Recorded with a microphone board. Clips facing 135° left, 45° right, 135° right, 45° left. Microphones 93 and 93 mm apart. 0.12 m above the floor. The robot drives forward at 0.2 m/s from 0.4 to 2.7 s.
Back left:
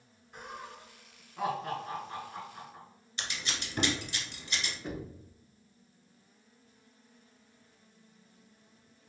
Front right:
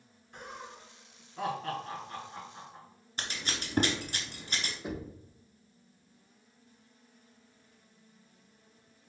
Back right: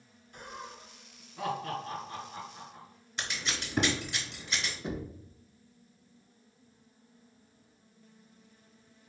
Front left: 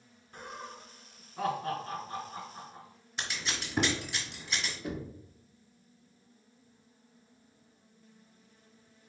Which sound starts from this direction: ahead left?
Laughter, at 0.3 s.